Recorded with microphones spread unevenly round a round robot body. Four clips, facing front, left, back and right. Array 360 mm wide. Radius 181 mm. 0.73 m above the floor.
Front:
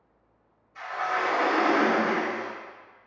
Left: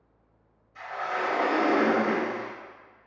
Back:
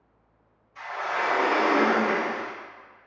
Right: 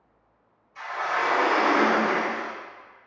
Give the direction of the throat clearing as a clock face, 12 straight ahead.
No throat clearing in this recording.